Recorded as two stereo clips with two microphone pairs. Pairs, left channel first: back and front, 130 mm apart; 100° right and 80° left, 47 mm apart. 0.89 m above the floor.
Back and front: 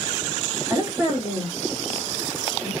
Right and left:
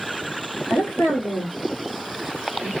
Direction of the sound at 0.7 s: 75° right.